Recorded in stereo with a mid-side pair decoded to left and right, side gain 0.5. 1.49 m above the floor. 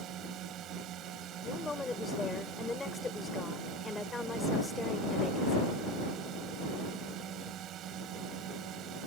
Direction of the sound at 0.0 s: 65° right.